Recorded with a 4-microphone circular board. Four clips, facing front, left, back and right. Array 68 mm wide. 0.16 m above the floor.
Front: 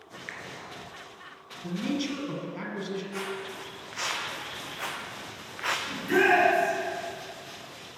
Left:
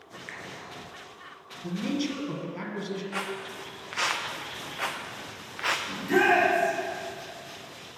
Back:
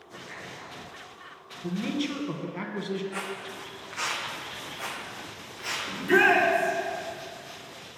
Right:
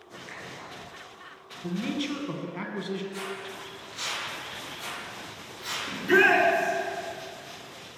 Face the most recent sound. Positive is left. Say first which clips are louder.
# right 3 dB, back 2 dB
turn(degrees=-115)